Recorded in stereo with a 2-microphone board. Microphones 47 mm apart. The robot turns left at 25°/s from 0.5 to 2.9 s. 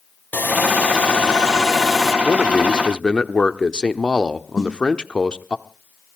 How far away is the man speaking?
About 0.8 m.